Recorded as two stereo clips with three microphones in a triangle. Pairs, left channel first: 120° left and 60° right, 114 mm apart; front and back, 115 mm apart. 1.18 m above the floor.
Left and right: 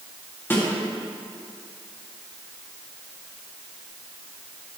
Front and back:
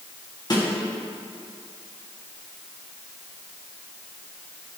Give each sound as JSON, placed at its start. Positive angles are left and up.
{"t": 0.5, "sound": "a snare drum", "azimuth_deg": 50, "distance_m": 2.0}